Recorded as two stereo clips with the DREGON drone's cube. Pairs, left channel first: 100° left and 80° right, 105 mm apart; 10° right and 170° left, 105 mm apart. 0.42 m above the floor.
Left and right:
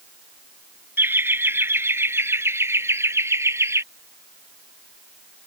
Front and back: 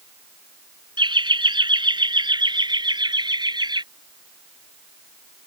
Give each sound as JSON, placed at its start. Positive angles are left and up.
{"t": 1.0, "sound": "laughter", "azimuth_deg": -150}